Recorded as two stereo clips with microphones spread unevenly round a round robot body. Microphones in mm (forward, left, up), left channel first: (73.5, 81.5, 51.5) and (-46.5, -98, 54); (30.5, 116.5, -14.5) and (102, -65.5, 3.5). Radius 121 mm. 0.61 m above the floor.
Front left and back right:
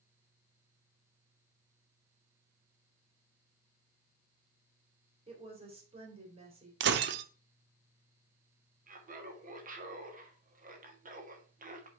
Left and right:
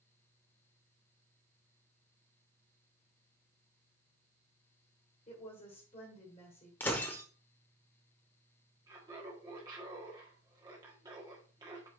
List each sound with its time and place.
5.3 s a woman speaking: 175° left, 2.5 m
6.8 s breaking glass: 165° right, 0.5 m
8.9 s laughter: 140° right, 1.5 m